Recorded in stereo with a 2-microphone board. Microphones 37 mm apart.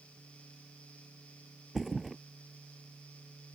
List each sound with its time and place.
1.8 s a thud: centre (ahead or behind)